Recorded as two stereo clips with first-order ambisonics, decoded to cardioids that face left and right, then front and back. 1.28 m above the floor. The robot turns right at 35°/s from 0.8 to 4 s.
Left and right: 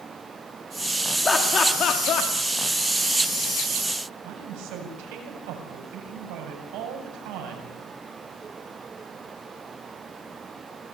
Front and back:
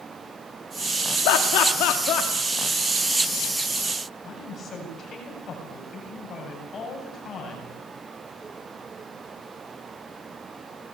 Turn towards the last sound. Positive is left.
turn(degrees=-65)